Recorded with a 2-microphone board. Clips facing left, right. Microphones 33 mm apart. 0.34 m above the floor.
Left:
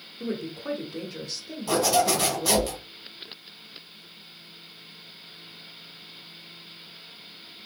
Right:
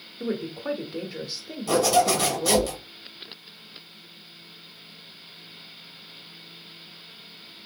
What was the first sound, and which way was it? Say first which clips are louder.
A woman speaking: right 2 dB; 20° right (ahead or behind).